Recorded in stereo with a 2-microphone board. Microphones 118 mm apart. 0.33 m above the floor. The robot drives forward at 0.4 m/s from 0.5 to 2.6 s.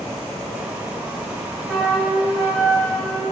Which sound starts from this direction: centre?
A flute, at 1.7 s.